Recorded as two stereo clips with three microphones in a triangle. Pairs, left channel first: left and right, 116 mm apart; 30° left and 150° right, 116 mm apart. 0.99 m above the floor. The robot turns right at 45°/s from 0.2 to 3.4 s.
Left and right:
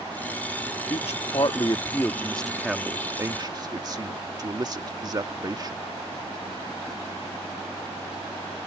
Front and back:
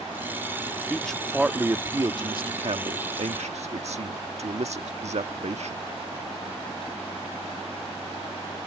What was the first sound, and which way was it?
A man speaking, 105° left.